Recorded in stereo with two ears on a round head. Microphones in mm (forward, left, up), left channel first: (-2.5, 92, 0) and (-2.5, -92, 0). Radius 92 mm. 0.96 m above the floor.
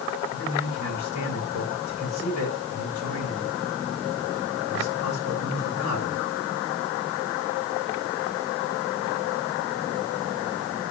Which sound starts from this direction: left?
A man speaking, at 0.3 s.